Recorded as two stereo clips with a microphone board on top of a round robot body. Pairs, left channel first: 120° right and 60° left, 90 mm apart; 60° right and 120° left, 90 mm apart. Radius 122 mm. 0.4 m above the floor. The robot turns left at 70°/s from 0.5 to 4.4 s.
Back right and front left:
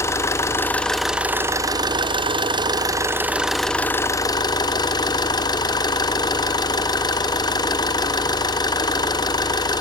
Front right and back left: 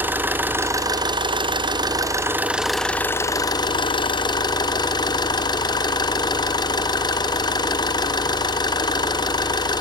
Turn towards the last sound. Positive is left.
turn(degrees=-85)